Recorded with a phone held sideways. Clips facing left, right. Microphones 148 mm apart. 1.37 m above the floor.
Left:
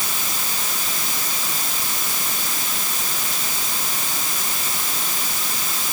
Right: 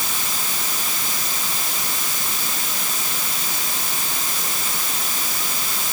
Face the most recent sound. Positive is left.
No sound to turn to.